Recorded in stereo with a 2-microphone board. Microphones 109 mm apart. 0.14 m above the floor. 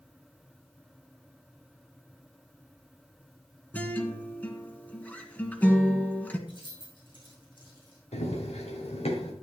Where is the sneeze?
No sneeze in this recording.